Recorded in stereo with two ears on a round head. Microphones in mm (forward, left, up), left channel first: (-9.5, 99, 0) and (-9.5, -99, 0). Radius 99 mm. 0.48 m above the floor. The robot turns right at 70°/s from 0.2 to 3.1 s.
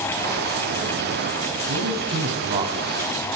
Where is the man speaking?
75° right (ahead or behind), 3.5 m; by 3.0 s 5° left (ahead or behind), 3.5 m.